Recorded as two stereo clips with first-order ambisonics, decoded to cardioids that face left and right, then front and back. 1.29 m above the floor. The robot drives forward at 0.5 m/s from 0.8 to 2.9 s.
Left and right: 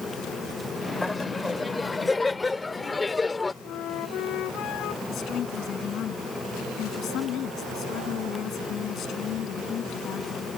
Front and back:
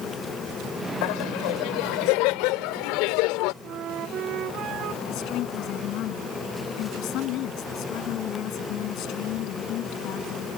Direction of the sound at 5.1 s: 40° left.